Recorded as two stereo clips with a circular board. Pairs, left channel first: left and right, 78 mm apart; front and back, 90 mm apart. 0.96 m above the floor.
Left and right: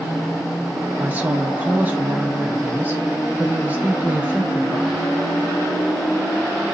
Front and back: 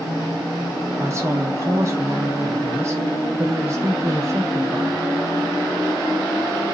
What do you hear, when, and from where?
1.0 s a woman speaking: 140° right, 1.0 m